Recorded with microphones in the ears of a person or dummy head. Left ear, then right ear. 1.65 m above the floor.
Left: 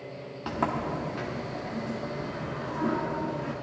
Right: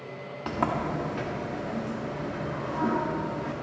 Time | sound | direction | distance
0.5 | a sliding door | 5° left (ahead or behind) | 1.3 m